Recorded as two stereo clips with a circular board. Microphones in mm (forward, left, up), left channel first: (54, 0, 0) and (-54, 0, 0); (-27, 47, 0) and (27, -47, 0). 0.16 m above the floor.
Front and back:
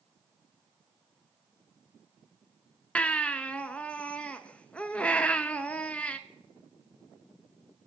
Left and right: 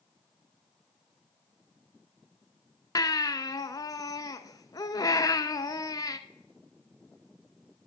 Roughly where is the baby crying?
Left.